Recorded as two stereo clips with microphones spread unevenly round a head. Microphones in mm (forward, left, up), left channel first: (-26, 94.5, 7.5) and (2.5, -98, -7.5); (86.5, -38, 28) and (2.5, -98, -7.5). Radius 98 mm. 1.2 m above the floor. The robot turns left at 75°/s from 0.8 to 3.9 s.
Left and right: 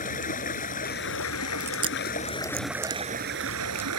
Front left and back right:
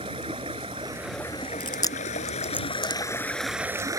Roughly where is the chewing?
Ahead.